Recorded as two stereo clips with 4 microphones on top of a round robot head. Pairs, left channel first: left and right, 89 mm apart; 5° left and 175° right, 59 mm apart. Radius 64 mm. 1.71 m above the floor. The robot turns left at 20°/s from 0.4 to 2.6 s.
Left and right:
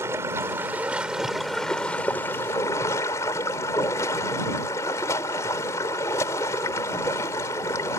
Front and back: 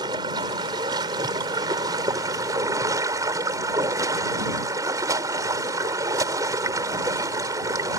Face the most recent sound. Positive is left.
turn(degrees=155)